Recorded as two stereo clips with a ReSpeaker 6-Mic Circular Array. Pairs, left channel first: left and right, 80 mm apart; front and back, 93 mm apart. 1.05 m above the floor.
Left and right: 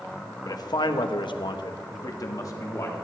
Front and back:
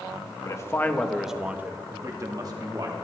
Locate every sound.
0.5 s a man speaking: 50° left, 1.1 m; by 2.9 s 140° left, 2 m